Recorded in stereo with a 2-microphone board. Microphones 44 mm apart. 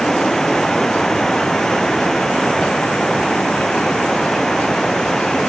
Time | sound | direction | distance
0.0 | running water | 15° left (ahead or behind) | ?